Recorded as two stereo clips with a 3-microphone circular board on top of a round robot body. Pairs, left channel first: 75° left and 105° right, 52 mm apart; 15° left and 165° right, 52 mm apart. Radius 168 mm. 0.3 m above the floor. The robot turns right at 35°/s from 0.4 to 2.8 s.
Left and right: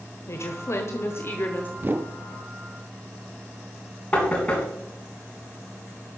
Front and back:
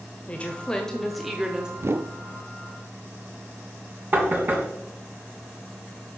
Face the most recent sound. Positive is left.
turn(degrees=145)